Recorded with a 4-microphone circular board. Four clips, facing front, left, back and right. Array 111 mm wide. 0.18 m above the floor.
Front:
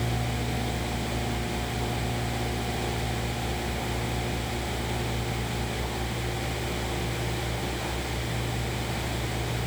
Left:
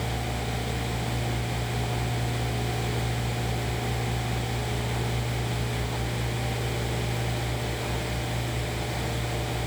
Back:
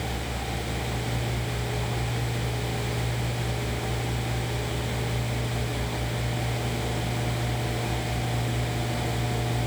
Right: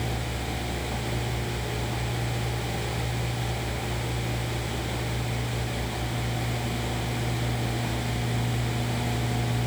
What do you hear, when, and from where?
Only background noise.